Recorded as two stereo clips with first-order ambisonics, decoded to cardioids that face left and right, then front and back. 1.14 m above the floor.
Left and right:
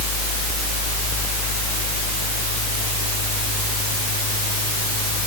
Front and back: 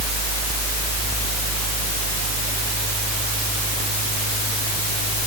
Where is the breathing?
No breathing in this recording.